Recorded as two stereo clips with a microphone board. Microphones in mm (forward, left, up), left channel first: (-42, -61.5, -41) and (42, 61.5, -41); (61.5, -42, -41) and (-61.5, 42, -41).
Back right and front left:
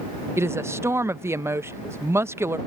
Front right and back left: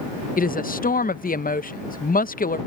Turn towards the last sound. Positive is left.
turn(degrees=-15)